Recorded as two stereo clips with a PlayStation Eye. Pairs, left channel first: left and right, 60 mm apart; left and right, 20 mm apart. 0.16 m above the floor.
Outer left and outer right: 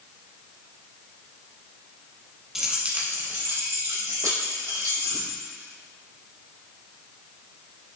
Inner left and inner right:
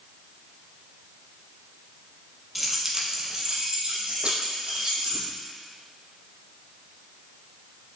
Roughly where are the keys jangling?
Centre.